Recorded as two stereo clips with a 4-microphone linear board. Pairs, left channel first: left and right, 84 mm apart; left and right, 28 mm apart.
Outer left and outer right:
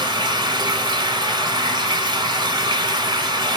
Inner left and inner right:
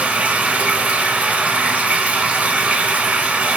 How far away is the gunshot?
No gunshot in this recording.